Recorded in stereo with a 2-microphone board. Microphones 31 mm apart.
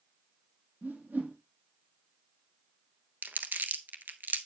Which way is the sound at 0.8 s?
70° right (ahead or behind).